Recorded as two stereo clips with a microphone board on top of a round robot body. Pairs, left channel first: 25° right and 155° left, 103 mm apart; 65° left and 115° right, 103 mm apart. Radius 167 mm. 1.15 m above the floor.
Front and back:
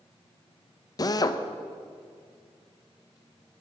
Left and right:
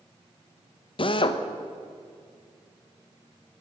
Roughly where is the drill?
Ahead left.